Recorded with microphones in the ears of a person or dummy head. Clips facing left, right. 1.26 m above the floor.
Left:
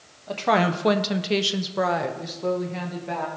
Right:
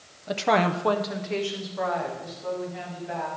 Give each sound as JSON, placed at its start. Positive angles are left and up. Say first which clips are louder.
{"t": 0.3, "sound": "a woman speaking", "louder": "left 1 dB", "side_deg": -15, "distance_m": 0.6}